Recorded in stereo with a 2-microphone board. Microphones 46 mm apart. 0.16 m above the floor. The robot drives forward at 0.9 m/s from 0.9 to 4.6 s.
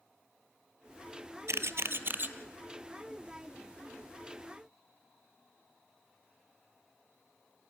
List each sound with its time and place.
1.5 s a camera shutter: 80° right, 0.8 m; by 2.3 s 45° right (ahead or behind), 1.1 m